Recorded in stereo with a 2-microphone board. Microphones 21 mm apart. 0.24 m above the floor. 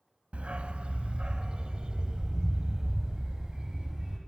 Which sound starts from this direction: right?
A dog barking, at 0.3 s.